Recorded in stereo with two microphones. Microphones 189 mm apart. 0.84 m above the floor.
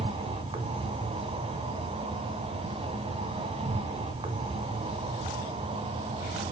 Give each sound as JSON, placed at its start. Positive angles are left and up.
{"t": 0.0, "sound": "an insect", "side_deg": -30, "distance_m": 1.4}